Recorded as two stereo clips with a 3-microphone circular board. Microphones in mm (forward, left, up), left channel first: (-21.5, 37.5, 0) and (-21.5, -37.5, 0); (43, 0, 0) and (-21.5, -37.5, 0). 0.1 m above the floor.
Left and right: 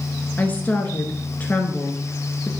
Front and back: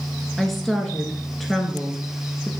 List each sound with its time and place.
0.4 s a woman speaking: 115° left, 1.3 m